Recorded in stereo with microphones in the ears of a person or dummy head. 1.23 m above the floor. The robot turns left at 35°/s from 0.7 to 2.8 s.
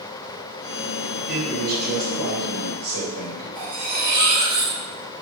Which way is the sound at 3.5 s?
80° right.